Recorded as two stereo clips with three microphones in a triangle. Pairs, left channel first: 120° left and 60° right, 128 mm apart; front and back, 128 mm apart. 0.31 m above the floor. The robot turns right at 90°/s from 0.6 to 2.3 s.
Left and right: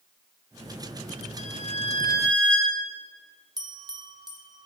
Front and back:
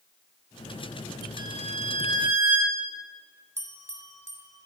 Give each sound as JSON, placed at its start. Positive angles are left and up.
{"t": 1.4, "sound": "a violin", "azimuth_deg": 120, "distance_m": 1.3}
{"t": 3.6, "sound": "a bell", "azimuth_deg": -115, "distance_m": 1.0}